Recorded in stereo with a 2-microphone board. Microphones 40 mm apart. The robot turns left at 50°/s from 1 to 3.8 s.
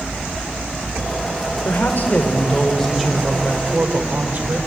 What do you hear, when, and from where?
1.6 s a woman speaking: 65° left, 4.5 m; by 4.6 s 45° right, 4.5 m